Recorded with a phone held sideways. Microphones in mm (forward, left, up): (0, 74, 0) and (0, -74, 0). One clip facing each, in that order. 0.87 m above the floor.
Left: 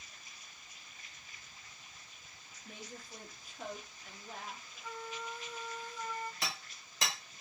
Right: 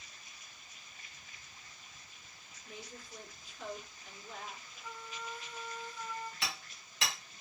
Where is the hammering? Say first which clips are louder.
Even; 40° left (ahead or behind), 1.6 m.